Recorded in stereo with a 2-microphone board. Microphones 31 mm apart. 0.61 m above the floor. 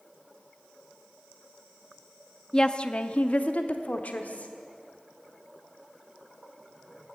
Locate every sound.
2.5 s a woman speaking: 20° left (ahead or behind), 0.6 m; by 4.5 s 60° left (ahead or behind), 1.4 m